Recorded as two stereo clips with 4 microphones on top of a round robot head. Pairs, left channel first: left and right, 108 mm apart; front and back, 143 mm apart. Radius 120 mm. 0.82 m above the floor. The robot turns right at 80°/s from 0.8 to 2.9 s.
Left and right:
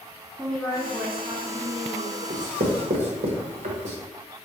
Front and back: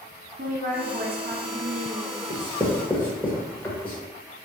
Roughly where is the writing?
Behind right.